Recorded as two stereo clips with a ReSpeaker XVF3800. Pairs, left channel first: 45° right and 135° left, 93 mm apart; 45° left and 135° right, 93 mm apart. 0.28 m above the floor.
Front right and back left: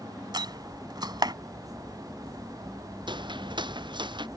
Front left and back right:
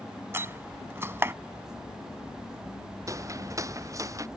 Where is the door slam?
165° left.